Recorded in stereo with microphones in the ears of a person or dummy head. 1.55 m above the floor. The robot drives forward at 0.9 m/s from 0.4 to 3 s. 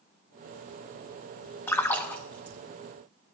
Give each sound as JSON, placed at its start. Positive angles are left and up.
{"t": 1.7, "sound": "a splash", "side_deg": 5, "distance_m": 0.7}